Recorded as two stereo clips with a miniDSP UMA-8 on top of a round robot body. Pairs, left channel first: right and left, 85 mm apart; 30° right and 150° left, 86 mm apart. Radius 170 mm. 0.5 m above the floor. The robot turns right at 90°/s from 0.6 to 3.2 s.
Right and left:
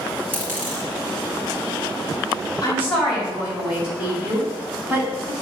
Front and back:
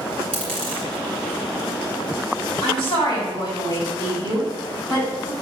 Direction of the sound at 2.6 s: 40° right.